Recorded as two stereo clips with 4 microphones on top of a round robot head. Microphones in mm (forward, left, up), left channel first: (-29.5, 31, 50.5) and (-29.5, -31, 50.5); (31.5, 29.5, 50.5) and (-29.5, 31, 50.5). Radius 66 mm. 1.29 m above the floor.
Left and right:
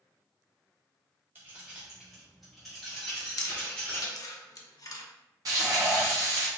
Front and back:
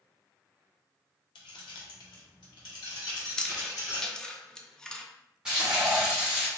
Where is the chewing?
75° left, 0.7 m.